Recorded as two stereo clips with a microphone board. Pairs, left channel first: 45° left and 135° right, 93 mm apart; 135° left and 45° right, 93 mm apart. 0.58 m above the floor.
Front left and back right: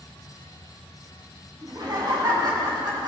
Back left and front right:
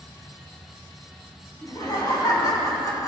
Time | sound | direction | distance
1.6 | laughter | straight behind | 5 m